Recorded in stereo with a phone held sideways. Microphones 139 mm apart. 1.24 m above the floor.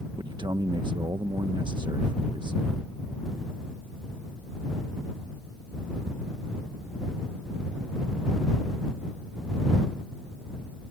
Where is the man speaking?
35° right (ahead or behind).